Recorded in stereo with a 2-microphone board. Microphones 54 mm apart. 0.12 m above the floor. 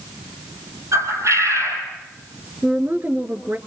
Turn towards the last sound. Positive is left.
turn(degrees=-40)  # may be behind; listen again after turning